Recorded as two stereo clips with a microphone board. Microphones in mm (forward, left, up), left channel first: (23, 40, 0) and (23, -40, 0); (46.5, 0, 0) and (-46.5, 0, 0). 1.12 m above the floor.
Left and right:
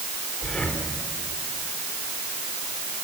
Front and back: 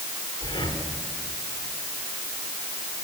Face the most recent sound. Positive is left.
turn(degrees=10)